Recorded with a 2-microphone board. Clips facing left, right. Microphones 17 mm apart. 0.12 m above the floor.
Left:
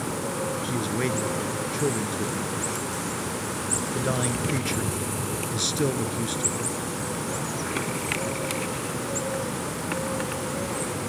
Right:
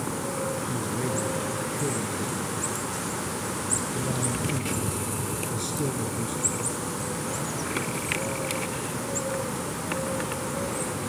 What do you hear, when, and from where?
0.6 s a man speaking: 40° left (ahead or behind), 1.4 m